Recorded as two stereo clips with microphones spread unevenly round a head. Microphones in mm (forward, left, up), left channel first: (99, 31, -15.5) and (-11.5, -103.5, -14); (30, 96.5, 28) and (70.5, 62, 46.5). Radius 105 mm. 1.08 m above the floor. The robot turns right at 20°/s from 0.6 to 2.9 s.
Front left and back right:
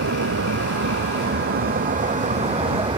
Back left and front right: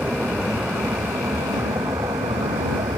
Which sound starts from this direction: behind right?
A vehicle, at 0.0 s.